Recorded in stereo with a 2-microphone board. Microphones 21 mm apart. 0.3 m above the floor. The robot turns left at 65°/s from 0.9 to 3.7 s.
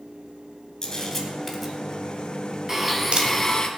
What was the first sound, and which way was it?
A camera shutter, 35° left (ahead or behind).